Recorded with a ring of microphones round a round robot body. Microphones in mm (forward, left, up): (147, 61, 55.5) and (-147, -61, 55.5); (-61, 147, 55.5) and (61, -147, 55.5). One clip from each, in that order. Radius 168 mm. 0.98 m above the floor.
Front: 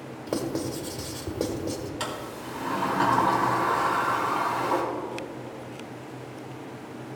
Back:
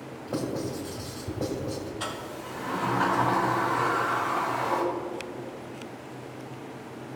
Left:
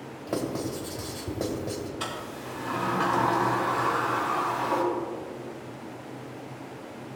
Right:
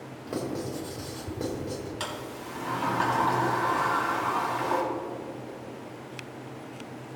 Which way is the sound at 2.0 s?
25° right.